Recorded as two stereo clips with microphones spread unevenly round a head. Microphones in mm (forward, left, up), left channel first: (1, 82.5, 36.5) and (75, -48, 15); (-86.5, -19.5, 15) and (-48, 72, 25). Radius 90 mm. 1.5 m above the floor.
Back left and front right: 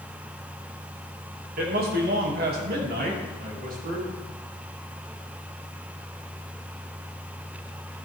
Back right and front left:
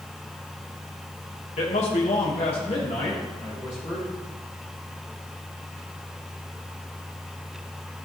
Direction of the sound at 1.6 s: 90° right.